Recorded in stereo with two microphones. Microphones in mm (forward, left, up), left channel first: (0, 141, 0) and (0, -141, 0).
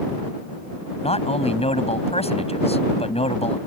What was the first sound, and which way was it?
A man speaking, 20° left (ahead or behind).